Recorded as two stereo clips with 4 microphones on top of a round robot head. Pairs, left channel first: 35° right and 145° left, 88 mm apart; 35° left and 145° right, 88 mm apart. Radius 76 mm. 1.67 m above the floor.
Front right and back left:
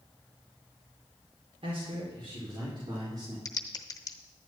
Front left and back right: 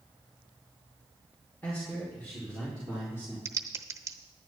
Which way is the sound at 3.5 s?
85° right.